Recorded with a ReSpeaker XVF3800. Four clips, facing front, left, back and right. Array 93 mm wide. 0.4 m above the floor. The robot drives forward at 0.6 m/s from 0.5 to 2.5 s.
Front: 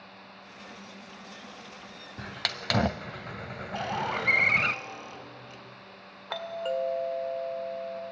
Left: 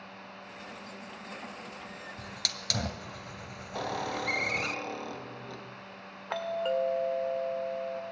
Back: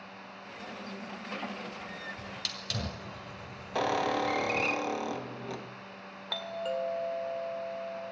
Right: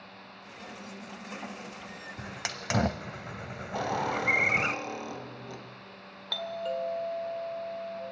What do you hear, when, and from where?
2.2 s a hiss: 25° right, 1.0 m; by 4.8 s 30° right, 0.8 m
3.8 s a squeak: 175° right, 1.8 m
6.3 s a doorbell: 60° left, 1.7 m